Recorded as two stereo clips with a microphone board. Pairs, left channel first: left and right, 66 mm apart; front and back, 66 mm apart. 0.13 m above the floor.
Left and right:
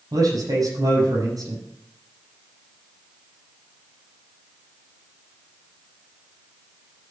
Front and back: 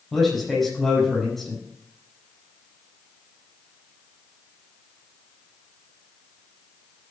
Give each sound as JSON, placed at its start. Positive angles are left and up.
{"t": 0.1, "sound": "a man speaking", "azimuth_deg": -85, "distance_m": 6.0}